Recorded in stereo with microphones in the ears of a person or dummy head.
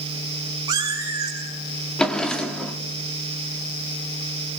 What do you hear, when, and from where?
0.7 s a cat meowing: 20° right (ahead or behind), 4.5 m
2.0 s a drawer: 5° left (ahead or behind), 1.5 m